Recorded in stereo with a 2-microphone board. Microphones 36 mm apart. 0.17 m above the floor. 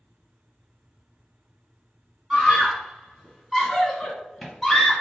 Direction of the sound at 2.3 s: 10° right (ahead or behind).